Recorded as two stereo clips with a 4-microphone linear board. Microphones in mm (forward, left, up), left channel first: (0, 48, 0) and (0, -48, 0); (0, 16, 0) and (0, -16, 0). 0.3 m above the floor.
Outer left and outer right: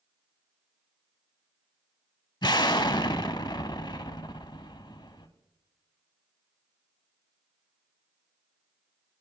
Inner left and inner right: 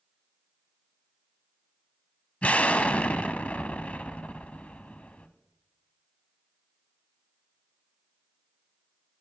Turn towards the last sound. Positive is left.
turn(degrees=50)  # may be behind; listen again after turning